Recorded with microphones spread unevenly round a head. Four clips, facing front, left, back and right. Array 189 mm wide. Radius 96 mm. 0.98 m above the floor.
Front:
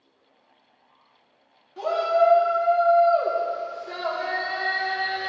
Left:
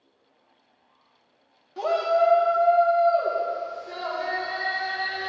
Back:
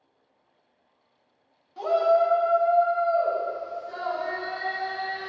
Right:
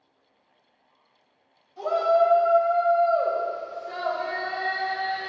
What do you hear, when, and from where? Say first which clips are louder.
1.8 s a shout: right 1 dB, even; 70° left, 1.7 m; by 5.3 s 5° left, 4.5 m